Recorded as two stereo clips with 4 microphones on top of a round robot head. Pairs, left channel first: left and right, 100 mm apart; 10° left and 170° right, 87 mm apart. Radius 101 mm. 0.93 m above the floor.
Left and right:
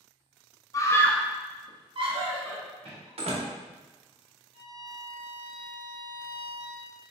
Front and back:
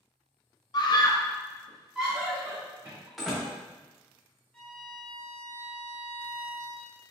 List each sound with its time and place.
0.7 s a scream: 35° left, 1.1 m; by 3.1 s 110° right, 2 m
3.2 s a door slam: 80° right, 0.9 m
4.5 s a violin: 85° left, 0.5 m